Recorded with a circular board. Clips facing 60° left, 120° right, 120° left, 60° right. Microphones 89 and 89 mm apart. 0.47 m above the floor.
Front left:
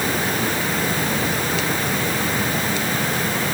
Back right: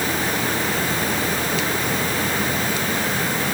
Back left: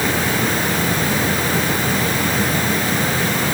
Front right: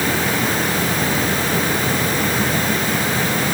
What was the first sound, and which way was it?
Only background noise.